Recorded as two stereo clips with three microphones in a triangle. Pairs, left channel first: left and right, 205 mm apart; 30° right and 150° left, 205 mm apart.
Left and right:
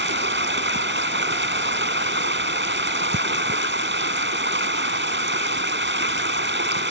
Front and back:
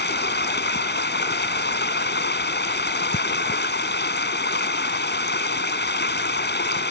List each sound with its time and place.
0.0 s running water: 65° right